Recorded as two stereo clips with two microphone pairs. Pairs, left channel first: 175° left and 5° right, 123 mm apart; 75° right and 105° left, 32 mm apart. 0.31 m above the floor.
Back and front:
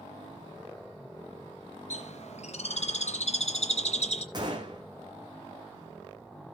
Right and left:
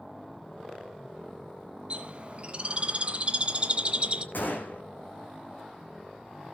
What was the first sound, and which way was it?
A bird, 155° left.